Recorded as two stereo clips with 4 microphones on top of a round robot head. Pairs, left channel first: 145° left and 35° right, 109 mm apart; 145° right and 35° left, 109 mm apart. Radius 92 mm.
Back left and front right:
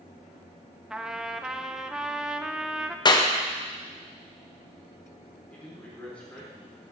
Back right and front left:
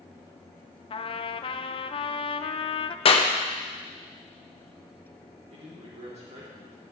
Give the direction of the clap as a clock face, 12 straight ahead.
6 o'clock.